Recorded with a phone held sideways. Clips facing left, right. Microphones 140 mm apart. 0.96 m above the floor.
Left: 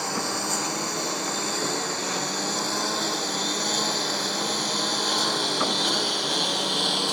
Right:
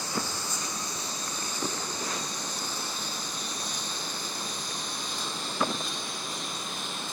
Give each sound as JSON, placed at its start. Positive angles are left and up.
{"t": 0.0, "sound": "a lawn mower", "side_deg": 70}